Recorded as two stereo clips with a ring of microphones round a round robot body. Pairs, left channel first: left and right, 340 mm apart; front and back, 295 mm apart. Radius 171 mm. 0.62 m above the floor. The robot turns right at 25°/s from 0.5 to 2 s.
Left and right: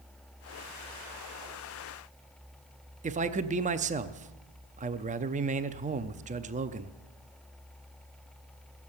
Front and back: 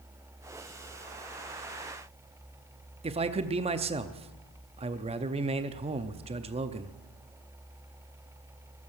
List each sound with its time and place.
3.0 s a man speaking: 135° right, 0.6 m